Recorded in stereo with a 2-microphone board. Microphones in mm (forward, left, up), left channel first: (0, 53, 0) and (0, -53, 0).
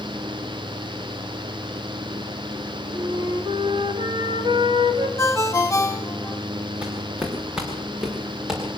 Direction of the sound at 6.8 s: 10° right (ahead or behind).